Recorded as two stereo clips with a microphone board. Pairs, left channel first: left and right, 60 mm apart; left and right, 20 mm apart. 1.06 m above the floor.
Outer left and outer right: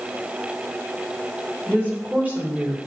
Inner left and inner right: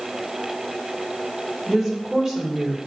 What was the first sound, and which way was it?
A woman speaking, 25° right (ahead or behind).